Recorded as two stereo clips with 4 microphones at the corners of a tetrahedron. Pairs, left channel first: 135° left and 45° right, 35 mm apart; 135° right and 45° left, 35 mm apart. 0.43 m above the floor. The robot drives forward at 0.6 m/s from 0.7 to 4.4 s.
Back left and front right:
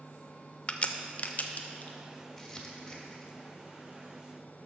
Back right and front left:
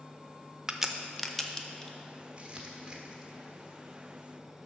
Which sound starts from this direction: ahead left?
Crumpling, at 2.4 s.